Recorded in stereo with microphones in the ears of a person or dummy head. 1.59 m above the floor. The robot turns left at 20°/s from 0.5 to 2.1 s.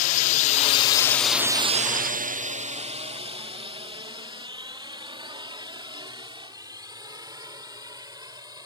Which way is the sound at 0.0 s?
40° left (ahead or behind).